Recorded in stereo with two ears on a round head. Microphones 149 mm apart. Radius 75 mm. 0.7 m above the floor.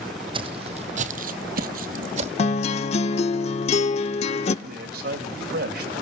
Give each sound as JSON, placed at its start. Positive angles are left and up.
{"t": 0.3, "sound": "footsteps", "side_deg": -30, "distance_m": 1.9}
{"t": 2.4, "sound": "a guitar", "side_deg": 40, "distance_m": 0.7}
{"t": 4.7, "sound": "a man speaking", "side_deg": -65, "distance_m": 3.5}